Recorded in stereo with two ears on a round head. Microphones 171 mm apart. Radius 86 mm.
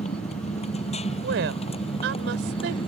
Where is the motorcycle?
35° left (ahead or behind); by 2.9 s 30° left (ahead or behind).